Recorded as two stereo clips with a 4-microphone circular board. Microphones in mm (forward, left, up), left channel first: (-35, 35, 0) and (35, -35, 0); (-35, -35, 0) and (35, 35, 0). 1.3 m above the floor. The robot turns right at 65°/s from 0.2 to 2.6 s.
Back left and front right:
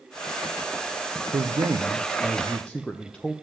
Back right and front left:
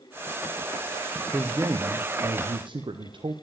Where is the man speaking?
25° right, 0.6 m; by 3.3 s 55° left, 0.6 m.